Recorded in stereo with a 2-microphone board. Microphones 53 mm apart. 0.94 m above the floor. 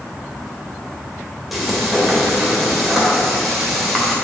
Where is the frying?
5° right (ahead or behind), 2.5 m.